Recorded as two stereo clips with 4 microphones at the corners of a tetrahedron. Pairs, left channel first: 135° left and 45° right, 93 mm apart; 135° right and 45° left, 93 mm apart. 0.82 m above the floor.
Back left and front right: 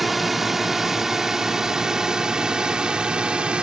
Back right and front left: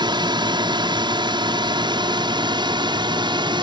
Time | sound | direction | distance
0.0 | a drone | 40° left | ?